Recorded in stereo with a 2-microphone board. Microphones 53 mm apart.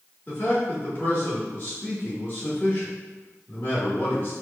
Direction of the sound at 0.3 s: 35° left (ahead or behind).